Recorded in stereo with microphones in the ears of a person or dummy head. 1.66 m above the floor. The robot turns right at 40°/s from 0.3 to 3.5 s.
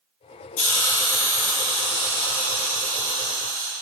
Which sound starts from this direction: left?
A hiss, at 0.6 s.